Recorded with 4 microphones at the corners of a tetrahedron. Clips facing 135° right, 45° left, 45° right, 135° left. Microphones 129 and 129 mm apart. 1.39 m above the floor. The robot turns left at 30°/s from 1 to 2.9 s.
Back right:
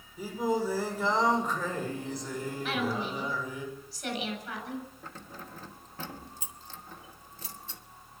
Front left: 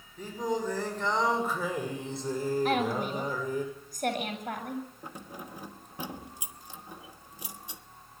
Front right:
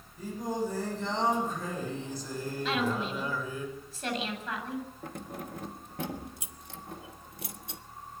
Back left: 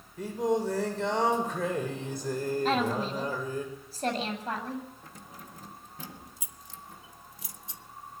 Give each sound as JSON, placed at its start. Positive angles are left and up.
{"t": 0.2, "sound": "singing", "azimuth_deg": 145, "distance_m": 6.5}
{"t": 2.6, "sound": "a woman speaking", "azimuth_deg": 90, "distance_m": 7.5}
{"t": 5.0, "sound": "keys jangling", "azimuth_deg": -30, "distance_m": 1.2}